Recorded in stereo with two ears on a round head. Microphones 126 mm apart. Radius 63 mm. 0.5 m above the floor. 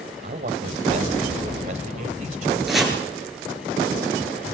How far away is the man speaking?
About 2.5 m.